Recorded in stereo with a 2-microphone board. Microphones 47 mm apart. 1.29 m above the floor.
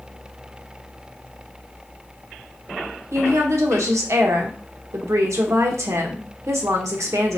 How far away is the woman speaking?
About 0.8 m.